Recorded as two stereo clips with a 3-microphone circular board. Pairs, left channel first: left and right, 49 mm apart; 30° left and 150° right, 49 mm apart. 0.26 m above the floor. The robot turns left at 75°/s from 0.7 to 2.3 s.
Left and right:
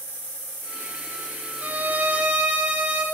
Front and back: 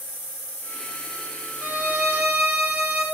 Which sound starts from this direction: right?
A violin, at 1.6 s.